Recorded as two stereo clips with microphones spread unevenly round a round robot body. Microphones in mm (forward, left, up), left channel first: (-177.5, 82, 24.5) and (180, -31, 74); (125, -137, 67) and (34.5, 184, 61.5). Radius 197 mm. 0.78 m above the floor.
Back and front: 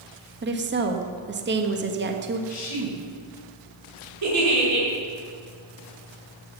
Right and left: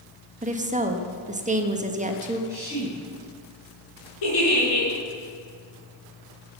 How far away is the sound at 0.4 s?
About 1.4 m.